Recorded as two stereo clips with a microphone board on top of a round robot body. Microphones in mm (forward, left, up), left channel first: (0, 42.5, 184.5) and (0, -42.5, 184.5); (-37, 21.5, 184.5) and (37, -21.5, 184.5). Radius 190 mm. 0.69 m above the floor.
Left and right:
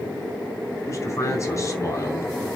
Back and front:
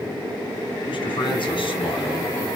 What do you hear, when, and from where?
0.9 s a man speaking: 145° left, 3 m